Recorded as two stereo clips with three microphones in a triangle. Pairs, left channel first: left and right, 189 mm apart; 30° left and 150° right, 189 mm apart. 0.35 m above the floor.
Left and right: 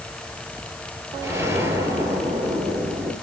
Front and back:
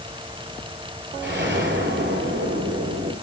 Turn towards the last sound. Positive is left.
turn(degrees=-165)